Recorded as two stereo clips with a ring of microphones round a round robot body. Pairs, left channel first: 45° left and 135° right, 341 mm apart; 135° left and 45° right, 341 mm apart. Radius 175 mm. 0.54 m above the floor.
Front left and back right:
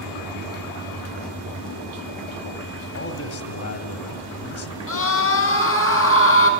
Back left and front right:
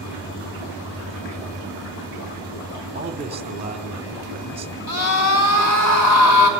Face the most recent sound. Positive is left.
turn(degrees=95)